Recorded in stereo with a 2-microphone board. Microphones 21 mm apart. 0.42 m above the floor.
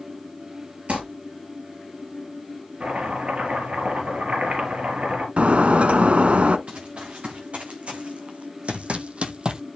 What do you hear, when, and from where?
0.9 s crumpling: 80° right, 5.5 m
2.8 s chopping: 80° right, 5 m
5.4 s breaking glass: 75° right (ahead or behind), 0.7 m
6.7 s running footsteps: 75° right (ahead or behind), 3 m; by 9.6 s 40° right (ahead or behind), 0.9 m